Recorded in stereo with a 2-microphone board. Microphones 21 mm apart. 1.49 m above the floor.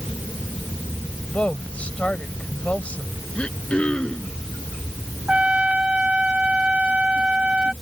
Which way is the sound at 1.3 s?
85° left.